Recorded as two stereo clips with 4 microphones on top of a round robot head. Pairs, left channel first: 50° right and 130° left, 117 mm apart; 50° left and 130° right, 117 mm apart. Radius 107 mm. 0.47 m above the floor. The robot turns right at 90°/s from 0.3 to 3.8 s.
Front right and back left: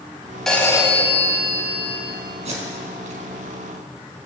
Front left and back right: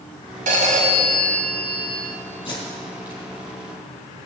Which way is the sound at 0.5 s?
135° right.